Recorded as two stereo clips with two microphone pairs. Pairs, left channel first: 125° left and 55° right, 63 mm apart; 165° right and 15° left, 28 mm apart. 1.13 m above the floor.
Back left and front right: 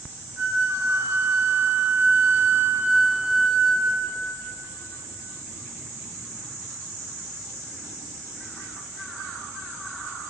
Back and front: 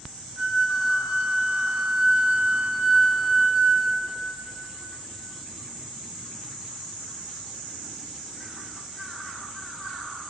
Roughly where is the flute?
Ahead.